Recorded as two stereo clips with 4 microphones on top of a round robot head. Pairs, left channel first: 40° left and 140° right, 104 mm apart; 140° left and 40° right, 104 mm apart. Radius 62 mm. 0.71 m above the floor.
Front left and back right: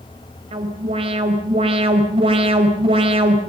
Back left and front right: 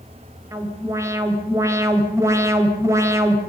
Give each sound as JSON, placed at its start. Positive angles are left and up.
{"t": 0.5, "sound": "an alarm", "azimuth_deg": -105, "distance_m": 4.0}